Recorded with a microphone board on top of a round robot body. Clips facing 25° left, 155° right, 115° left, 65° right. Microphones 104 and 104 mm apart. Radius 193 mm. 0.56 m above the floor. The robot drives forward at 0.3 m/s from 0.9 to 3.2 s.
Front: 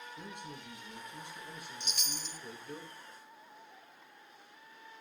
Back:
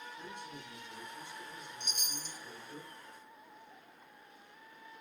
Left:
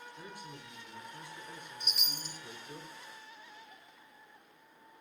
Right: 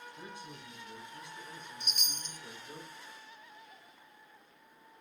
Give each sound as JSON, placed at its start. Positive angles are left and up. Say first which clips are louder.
{"t": 0.2, "sound": "a man speaking", "louder": "even, even", "azimuth_deg": 5, "distance_m": 9.0}
{"t": 1.8, "sound": "a chime", "louder": "front 1 dB, left 1 dB", "azimuth_deg": 25, "distance_m": 0.9}